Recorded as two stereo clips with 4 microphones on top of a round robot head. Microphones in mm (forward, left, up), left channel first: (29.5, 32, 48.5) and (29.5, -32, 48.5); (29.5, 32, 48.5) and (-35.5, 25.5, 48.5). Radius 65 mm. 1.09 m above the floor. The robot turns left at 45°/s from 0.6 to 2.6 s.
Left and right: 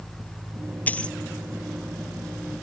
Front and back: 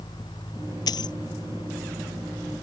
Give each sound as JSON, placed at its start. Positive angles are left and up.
{"t": 0.9, "sound": "a dropped coin", "azimuth_deg": 25}